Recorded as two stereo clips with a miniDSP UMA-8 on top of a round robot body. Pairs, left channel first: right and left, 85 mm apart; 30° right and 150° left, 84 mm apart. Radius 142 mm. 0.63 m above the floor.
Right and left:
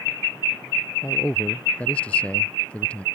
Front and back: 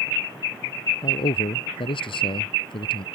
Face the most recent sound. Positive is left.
turn(degrees=-15)